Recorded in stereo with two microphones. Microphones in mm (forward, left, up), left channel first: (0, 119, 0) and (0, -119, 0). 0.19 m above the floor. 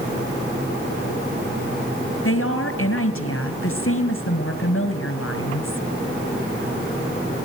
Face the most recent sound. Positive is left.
turn(degrees=65)  # may be behind; listen again after turning